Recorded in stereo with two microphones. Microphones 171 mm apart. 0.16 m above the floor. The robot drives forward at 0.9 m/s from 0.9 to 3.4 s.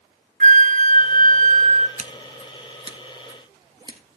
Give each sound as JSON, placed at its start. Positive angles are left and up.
{"t": 0.4, "sound": "a flute", "side_deg": -50, "distance_m": 0.6}
{"t": 2.0, "sound": "scissors", "side_deg": -50, "distance_m": 0.8}